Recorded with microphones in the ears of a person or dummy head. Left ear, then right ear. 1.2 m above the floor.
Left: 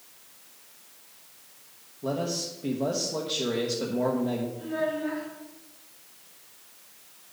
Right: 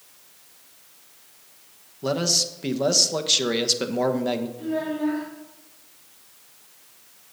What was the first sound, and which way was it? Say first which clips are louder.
A man speaking: right 7 dB; 65° right (ahead or behind).